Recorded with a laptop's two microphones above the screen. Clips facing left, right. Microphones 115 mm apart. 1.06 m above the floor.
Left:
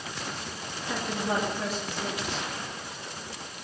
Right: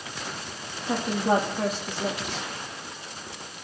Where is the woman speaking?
50° right (ahead or behind), 2 m.